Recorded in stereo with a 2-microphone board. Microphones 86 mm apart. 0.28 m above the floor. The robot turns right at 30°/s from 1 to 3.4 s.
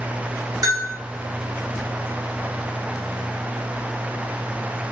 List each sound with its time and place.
0.6 s a bell: 45° right (ahead or behind), 1.3 m